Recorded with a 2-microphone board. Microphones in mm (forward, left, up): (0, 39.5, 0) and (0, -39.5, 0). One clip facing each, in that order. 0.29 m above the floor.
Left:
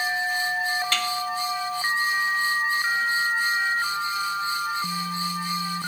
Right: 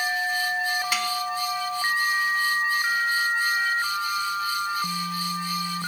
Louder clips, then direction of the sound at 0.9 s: Even; 10° right (ahead or behind).